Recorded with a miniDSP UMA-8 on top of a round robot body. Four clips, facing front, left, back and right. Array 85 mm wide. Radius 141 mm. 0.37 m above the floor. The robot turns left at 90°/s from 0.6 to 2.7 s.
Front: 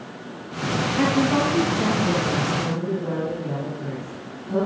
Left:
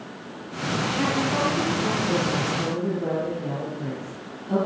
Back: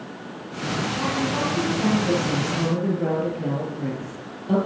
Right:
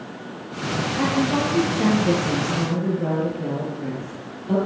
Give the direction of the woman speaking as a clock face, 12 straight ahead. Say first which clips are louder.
Right 4 dB, front 7 dB; 12 o'clock.